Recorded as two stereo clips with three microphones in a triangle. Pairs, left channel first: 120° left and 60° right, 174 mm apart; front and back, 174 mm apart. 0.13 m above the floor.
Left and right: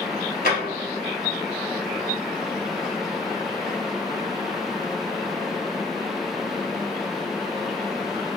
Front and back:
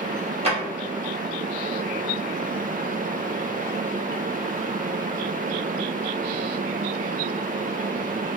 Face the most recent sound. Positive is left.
turn(degrees=135)